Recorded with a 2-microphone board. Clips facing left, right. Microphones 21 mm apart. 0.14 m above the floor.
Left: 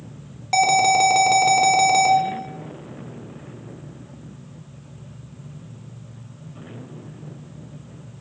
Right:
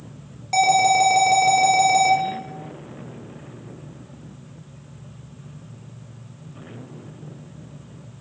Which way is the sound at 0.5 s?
25° left (ahead or behind).